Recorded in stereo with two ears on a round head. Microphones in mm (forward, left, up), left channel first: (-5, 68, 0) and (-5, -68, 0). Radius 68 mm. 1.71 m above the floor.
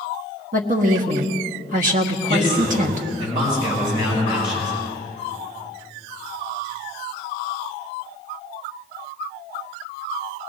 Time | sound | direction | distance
0.5 | a woman speaking | 60° right (ahead or behind) | 1.3 m
2.3 | a man speaking | 30° right (ahead or behind) | 5.5 m